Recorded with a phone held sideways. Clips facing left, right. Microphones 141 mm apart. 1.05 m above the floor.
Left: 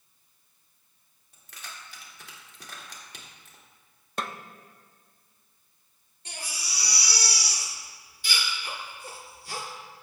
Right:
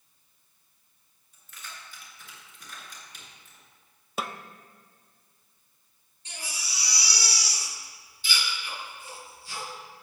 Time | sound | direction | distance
1.3 | keys jangling | 90° left | 2 m
4.2 | a snare drum | 5° right (ahead or behind) | 0.5 m
6.2 | a baby crying | 70° left (ahead or behind) | 3 m